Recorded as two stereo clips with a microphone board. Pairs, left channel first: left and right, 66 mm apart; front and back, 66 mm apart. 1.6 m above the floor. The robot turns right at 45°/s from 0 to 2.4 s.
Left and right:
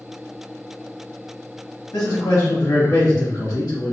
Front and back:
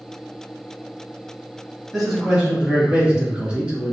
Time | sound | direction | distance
1.9 | a man speaking | 85° left | 1.4 m